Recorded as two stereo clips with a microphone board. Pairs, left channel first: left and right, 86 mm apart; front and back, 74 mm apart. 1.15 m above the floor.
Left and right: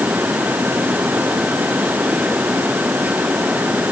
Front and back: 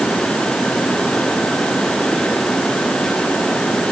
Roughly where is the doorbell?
I don't hear a doorbell.